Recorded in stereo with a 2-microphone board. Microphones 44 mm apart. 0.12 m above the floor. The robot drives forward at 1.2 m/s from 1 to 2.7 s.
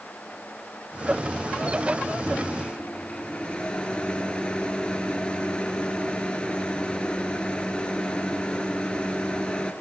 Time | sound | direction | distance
2.3 | a microwave | 30° left (ahead or behind) | 1.1 m